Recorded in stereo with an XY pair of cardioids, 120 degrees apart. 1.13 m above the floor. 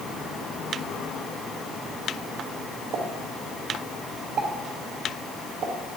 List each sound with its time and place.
2.9 s a pop: 60° right, 1.2 m